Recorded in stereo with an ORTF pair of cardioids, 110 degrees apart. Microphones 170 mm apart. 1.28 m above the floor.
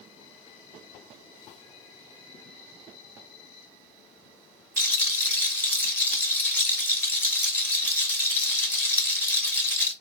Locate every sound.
4.8 s a rattle: 10° left, 1.3 m